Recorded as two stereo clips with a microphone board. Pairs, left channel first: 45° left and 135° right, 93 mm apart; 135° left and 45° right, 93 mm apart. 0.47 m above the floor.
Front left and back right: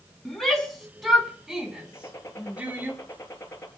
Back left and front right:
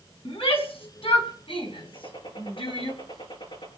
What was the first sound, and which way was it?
A shout, 130° left.